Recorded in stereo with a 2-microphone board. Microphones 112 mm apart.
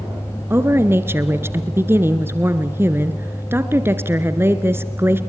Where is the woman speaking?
20° right (ahead or behind), 1.6 m.